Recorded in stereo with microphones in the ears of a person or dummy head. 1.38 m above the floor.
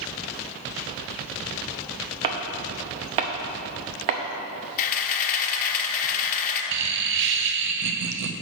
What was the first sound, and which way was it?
Chopping, 35° right (ahead or behind).